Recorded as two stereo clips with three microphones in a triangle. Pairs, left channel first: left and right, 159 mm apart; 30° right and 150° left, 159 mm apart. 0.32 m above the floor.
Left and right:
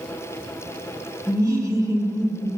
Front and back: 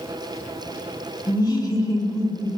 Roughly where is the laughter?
Ahead right.